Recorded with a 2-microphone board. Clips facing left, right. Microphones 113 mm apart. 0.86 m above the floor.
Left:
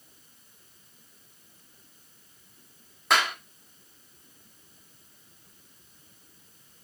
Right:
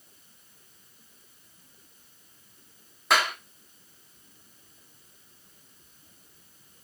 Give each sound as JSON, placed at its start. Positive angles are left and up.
{"t": 3.1, "sound": "a clap", "side_deg": 0, "distance_m": 1.6}